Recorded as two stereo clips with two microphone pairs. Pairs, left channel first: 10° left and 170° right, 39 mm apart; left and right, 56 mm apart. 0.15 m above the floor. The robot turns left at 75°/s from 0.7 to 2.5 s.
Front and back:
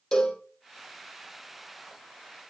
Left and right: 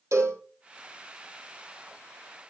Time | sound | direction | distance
0.1 | a cowbell | 65° right | 3.5 m